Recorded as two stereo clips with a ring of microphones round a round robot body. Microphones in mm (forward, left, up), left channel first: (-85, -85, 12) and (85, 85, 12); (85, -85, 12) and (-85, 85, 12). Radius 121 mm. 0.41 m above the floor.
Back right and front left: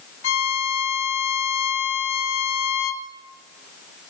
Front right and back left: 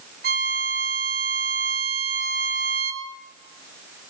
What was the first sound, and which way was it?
A violin, 170° right.